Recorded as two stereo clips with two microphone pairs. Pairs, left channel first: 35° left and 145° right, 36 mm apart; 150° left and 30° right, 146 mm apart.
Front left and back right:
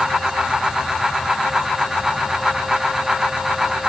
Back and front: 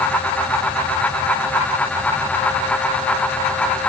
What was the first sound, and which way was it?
Only background noise.